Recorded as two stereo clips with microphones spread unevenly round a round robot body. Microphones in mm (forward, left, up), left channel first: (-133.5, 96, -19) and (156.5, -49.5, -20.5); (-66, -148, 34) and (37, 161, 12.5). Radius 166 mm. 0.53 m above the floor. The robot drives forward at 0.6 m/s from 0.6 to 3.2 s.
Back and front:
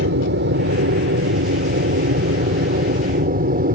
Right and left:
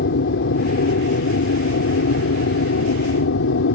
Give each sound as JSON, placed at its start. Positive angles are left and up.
{"t": 0.0, "sound": "an aircraft", "azimuth_deg": -70}